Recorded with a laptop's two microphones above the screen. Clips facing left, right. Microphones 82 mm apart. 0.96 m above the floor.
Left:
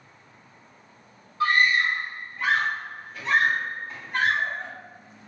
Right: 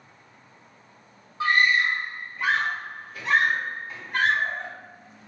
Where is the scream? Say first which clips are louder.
Even; 20° right (ahead or behind), 1.3 m; by 4.7 s 5° right (ahead or behind), 3 m.